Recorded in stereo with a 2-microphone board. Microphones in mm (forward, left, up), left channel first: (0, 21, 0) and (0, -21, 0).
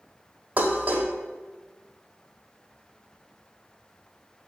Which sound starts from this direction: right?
Dishes clattering, at 0.6 s.